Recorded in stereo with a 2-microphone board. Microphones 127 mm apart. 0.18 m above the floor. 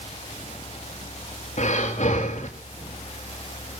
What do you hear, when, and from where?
1.6 s breathing: 60° left (ahead or behind), 4 m